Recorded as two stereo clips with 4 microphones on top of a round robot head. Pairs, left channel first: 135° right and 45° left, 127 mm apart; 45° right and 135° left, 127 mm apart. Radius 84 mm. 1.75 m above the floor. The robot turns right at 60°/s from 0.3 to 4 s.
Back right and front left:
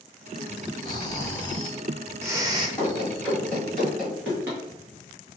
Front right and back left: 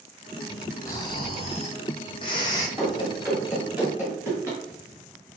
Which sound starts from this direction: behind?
Running footsteps, at 2.8 s.